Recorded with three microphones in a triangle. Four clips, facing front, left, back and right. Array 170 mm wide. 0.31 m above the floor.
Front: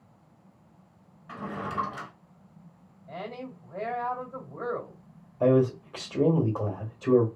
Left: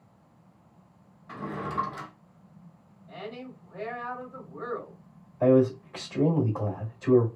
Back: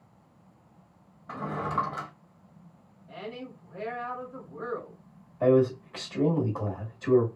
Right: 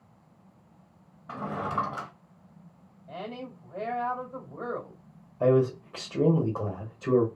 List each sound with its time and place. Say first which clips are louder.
1.3 s a drawer: right 2 dB, back 3 dB; 130° right, 0.7 m
3.1 s a woman speaking: right 2 dB, front 2 dB; 50° right, 1.8 m
5.4 s a man speaking: left 2 dB, even; 40° right, 1.3 m